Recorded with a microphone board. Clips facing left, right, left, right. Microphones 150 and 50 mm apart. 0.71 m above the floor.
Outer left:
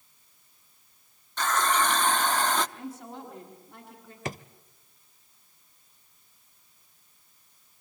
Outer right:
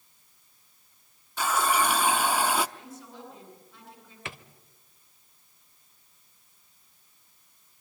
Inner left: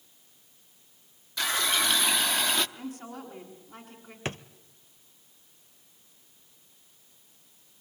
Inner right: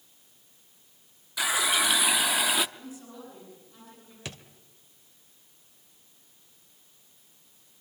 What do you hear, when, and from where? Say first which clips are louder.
1.4 s a running tap: even, inner right 1 dB; 10° right (ahead or behind), 0.7 m
2.8 s a woman speaking: outer left 5 dB, inner left 4 dB; 70° left (ahead or behind), 8 m
4.2 s a drawer: outer left 7 dB, inner left 7 dB; 40° left (ahead or behind), 0.7 m